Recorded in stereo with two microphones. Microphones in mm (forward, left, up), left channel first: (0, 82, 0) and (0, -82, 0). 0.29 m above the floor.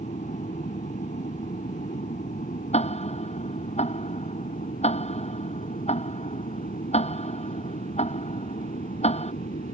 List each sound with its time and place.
0.0 s an aircraft: 50° left (ahead or behind); by 9.7 s 60° left (ahead or behind)
2.7 s ticking: 40° left (ahead or behind)